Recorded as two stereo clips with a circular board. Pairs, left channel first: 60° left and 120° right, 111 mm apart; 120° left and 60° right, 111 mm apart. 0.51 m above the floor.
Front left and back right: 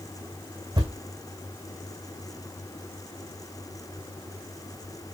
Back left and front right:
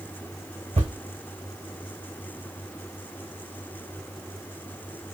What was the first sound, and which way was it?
A thud, 75° right.